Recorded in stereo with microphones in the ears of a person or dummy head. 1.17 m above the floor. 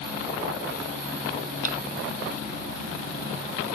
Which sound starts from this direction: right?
A snare drum, at 1.6 s.